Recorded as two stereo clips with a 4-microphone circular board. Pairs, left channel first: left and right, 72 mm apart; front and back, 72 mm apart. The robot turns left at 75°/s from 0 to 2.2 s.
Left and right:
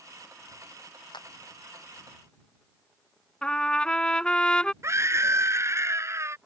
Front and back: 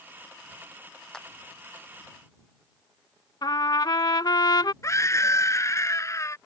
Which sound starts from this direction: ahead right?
A scream, at 4.8 s.